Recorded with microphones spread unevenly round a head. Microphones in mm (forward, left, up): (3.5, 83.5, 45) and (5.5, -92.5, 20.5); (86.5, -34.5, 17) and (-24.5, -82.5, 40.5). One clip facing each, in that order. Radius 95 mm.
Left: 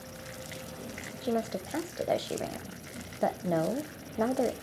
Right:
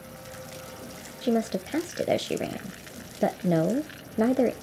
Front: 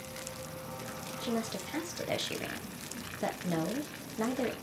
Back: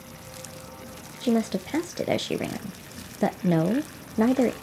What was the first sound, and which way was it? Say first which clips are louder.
A woman speaking: right 6 dB, back 11 dB; 130° right.